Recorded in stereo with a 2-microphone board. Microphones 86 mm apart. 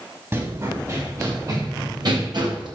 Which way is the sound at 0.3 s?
30° right (ahead or behind).